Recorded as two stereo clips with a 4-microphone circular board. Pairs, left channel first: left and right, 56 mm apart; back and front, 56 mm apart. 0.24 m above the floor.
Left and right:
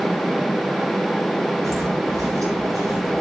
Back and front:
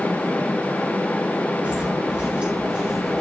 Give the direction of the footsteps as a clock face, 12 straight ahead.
2 o'clock.